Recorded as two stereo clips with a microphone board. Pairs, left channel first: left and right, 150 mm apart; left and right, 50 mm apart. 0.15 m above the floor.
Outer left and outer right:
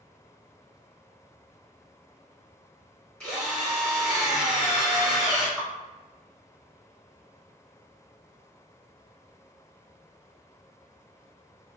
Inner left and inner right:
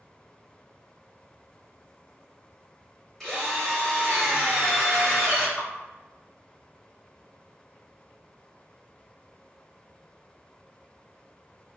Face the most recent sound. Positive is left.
turn(degrees=0)  # may be behind; listen again after turning